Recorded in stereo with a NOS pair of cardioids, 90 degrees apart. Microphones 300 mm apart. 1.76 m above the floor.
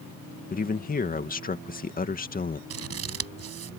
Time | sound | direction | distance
0.5 | a man speaking | 30° left | ?
2.7 | scissors | 55° right | ?